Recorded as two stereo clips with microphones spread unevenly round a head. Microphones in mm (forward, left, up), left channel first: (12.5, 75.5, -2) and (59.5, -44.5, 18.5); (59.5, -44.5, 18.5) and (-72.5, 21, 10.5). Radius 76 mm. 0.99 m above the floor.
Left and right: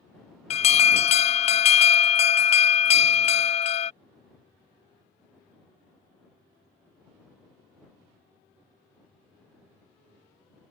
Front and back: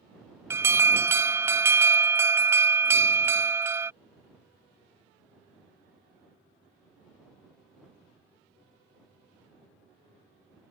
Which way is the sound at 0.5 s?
80° left.